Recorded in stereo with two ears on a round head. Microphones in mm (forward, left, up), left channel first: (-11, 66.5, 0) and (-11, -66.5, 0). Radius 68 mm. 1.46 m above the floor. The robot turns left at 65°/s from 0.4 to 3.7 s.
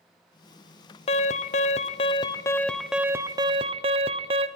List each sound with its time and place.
1.1 s an alarm: 115° left, 1.3 m; by 4.5 s 55° right, 1.3 m